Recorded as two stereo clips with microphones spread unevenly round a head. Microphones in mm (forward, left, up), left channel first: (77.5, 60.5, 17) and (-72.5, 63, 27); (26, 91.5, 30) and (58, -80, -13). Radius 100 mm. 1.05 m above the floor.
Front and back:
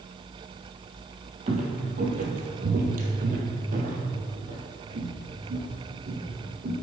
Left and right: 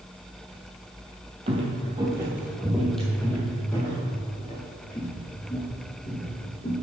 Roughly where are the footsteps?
Behind right.